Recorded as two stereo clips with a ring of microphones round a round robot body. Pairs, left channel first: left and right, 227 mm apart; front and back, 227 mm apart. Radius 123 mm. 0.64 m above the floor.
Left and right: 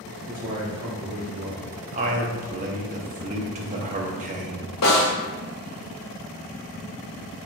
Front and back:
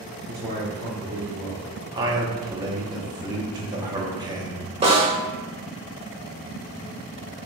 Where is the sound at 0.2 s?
125° right, 1.4 m.